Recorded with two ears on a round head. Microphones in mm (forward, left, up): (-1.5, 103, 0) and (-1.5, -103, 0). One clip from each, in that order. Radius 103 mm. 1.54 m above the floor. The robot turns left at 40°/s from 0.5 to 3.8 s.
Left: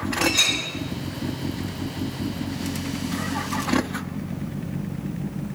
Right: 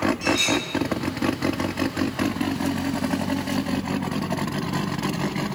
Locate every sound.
0.2 s a clink: 10° left (ahead or behind), 8.5 m; by 0.6 s 15° left (ahead or behind), 8.5 m